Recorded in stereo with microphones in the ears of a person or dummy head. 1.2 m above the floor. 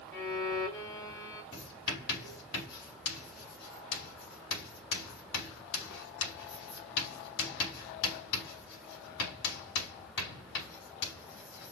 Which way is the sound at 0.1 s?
25° left (ahead or behind).